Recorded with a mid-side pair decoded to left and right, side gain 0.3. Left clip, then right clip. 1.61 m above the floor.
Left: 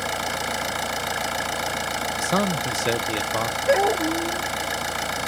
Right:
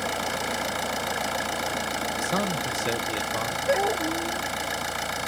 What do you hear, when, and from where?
0.0 s an engine running: 35° left
2.2 s a man speaking: 55° left
3.7 s a dog barking: 50° left